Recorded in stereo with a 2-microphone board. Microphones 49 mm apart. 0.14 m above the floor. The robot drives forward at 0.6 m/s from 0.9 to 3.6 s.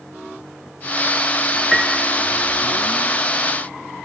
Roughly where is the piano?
Centre.